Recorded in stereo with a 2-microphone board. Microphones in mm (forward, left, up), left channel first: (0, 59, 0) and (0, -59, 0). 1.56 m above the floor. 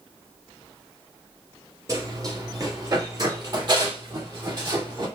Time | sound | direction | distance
1.9 | running footsteps | 30° right (ahead or behind) | 1.8 m